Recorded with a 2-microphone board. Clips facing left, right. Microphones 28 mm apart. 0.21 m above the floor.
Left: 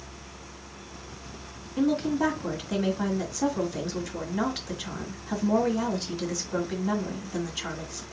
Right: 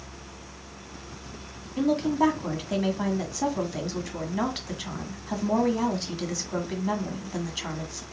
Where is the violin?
No violin in this recording.